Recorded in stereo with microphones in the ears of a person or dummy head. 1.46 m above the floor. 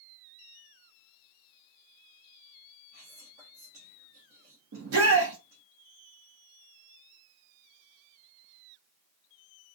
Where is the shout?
85° right, 0.7 m.